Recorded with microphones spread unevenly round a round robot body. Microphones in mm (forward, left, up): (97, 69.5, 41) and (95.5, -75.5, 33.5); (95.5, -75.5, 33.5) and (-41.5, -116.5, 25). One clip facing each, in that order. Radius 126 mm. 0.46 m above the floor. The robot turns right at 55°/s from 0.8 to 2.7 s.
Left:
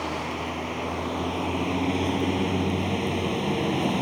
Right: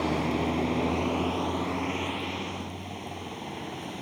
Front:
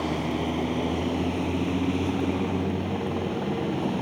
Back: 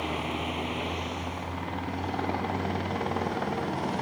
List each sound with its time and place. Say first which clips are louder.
0.0 s a vehicle: right 3 dB, front 5 dB; 30° right; by 4.0 s 75° left